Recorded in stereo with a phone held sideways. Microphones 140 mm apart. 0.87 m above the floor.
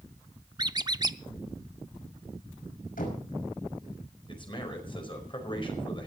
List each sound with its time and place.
0.6 s a squeak: 30° right (ahead or behind), 0.5 m
3.0 s knocking: 80° left, 5.5 m
4.3 s a man speaking: 35° left (ahead or behind), 5 m